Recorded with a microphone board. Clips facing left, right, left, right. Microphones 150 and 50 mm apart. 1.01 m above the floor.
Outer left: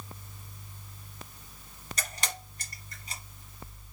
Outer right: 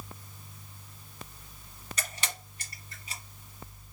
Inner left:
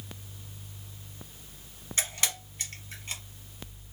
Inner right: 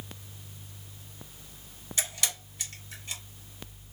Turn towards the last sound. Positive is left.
turn(degrees=40)  # may be behind; listen again after turning